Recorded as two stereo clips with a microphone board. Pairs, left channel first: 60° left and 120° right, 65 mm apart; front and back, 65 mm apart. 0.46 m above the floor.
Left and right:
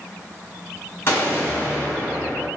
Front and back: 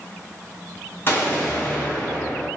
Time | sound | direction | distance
1.1 | an explosion | 35° left | 1.2 m